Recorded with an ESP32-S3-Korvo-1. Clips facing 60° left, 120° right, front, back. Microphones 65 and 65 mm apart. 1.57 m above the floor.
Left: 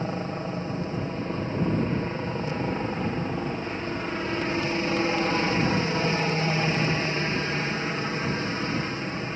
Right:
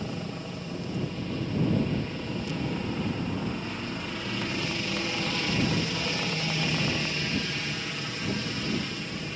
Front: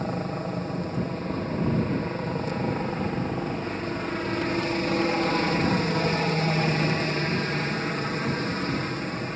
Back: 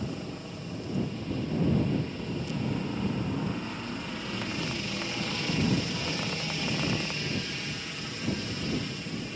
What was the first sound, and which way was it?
A helicopter, 15° left.